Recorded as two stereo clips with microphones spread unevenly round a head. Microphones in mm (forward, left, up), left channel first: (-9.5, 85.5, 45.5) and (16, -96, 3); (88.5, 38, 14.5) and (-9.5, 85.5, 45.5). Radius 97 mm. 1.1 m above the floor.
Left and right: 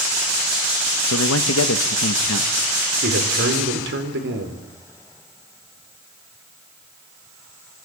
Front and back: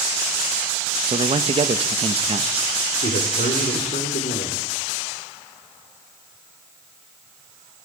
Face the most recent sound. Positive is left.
turn(degrees=-55)